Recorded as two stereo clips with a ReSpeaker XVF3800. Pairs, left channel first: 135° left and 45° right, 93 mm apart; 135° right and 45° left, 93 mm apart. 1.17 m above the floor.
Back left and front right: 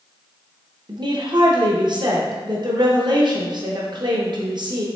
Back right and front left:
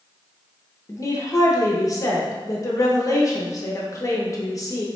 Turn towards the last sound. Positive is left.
turn(degrees=-85)